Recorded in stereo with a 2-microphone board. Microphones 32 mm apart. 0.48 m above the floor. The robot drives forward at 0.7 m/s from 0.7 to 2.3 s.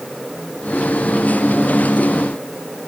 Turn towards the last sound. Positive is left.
No sound to turn to.